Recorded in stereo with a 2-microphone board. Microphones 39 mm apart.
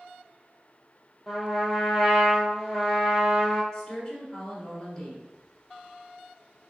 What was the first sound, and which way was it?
A trumpet, 5° right (ahead or behind).